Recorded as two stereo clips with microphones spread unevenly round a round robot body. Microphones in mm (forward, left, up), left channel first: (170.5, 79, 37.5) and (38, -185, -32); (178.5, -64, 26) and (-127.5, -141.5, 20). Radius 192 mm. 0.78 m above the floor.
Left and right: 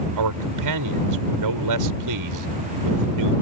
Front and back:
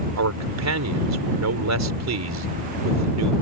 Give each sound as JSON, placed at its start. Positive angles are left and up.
{"t": 0.2, "sound": "a man speaking", "azimuth_deg": -130}